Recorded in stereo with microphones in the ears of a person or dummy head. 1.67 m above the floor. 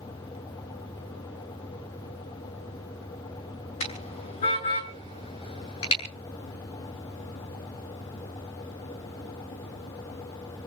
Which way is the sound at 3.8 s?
35° left (ahead or behind).